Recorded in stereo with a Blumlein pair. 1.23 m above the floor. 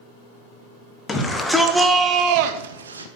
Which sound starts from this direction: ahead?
A shout, at 1.1 s.